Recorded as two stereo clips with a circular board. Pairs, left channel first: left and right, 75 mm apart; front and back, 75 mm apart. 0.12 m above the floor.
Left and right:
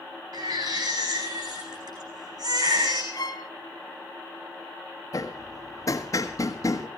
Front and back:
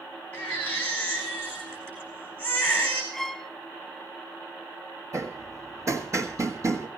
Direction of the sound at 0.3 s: 70° right.